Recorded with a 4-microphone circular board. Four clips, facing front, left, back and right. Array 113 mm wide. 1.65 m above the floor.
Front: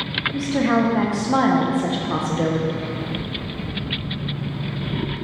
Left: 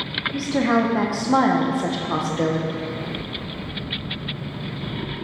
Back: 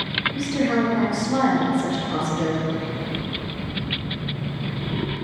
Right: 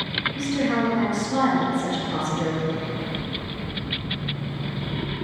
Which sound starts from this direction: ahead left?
A woman speaking, at 0.3 s.